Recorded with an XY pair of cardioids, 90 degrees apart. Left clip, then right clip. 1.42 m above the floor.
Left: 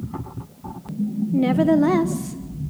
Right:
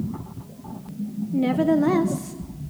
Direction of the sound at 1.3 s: 25° left.